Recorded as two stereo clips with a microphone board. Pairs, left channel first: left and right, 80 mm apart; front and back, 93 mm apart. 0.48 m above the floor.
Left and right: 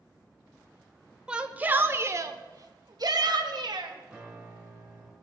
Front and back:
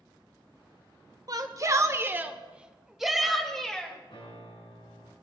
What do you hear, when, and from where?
1.3 s a shout: 165° right, 1.0 m; by 3.9 s 80° right, 1.8 m
4.1 s a piano: 5° right, 6 m